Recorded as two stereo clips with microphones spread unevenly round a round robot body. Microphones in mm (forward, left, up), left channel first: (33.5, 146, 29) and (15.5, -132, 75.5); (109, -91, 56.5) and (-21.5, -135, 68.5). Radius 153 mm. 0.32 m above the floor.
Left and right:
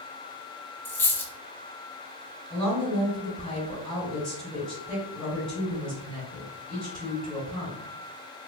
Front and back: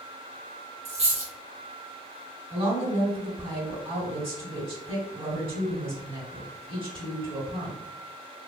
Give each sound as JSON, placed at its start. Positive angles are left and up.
{"t": 0.8, "sound": "a dropped coin", "azimuth_deg": 160, "distance_m": 0.8}
{"t": 2.5, "sound": "a woman speaking", "azimuth_deg": 165, "distance_m": 2.0}